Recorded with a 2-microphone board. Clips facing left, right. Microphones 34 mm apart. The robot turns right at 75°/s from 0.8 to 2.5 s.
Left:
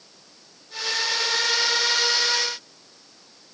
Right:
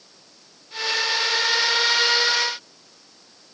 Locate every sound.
Only background noise.